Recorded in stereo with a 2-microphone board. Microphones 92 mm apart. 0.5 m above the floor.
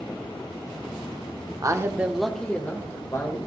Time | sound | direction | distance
1.6 | a man speaking | 40° right (ahead or behind) | 0.9 m